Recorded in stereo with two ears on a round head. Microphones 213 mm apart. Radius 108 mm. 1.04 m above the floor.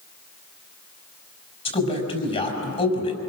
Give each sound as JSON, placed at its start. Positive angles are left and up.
{"t": 1.6, "sound": "a man speaking", "side_deg": 25, "distance_m": 5.5}